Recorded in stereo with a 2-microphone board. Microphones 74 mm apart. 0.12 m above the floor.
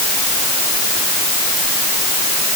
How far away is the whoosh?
No whoosh in this recording.